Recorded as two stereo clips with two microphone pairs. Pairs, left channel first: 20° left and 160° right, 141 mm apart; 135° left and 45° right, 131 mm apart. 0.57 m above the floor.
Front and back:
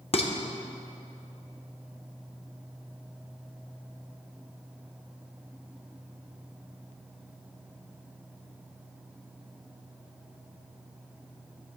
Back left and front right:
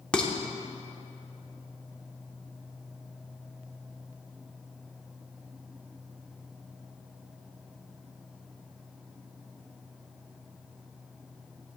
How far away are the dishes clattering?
About 0.7 m.